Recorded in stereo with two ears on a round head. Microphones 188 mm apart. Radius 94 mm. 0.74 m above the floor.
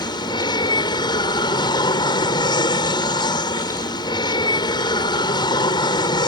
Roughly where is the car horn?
No car horn in this recording.